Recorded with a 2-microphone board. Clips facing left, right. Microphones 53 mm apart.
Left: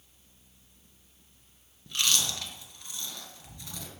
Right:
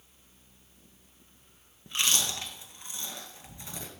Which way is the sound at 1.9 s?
25° right (ahead or behind).